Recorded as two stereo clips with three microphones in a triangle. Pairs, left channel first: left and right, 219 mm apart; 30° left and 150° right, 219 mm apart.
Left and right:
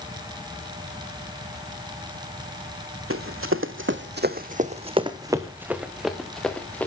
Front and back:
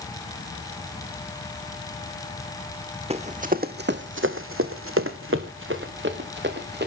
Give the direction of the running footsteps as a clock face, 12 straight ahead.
3 o'clock.